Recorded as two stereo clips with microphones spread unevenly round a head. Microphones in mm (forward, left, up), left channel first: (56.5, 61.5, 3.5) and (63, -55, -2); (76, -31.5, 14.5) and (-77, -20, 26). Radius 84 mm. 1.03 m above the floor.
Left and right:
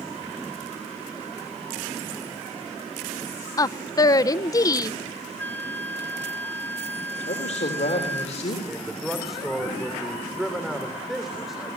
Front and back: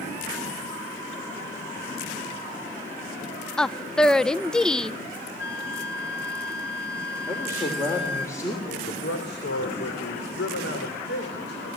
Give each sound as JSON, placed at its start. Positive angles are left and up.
{"t": 3.6, "sound": "a woman speaking", "azimuth_deg": 70, "distance_m": 0.6}
{"t": 5.4, "sound": "a flute", "azimuth_deg": 20, "distance_m": 2.0}
{"t": 7.3, "sound": "a man speaking", "azimuth_deg": 70, "distance_m": 3.5}
{"t": 8.7, "sound": "a man speaking", "azimuth_deg": 0, "distance_m": 3.0}